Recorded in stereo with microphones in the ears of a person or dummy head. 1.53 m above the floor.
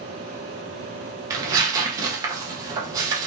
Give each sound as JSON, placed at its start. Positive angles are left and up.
{"t": 1.3, "sound": "tearing paper", "side_deg": -20, "distance_m": 0.8}